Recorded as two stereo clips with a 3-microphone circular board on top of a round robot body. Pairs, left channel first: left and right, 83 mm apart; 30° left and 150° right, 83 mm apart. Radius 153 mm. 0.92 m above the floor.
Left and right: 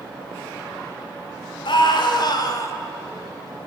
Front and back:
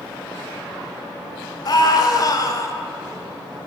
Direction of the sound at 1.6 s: 70° left.